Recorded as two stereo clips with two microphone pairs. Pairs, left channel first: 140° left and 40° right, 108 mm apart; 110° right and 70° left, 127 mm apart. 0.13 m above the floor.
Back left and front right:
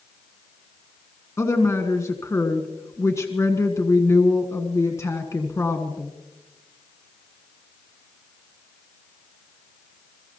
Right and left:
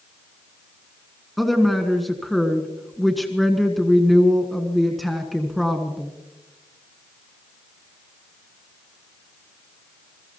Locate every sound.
1.4 s a woman speaking: 160° left, 1.4 m